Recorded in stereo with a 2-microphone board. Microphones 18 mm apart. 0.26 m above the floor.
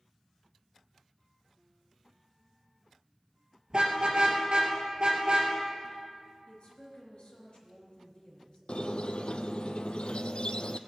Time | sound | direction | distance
3.7 | a car horn | 50° right (ahead or behind) | 3 m
6.5 | a woman speaking | 55° left (ahead or behind) | 4 m
8.7 | a squeak | 65° left (ahead or behind) | 0.5 m